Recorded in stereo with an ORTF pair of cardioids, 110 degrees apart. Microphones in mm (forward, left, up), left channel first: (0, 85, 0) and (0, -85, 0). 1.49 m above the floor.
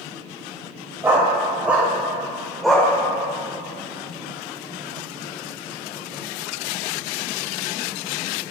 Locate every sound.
1.0 s a dog barking: 15° right, 3.5 m; by 2.9 s 5° left, 2.5 m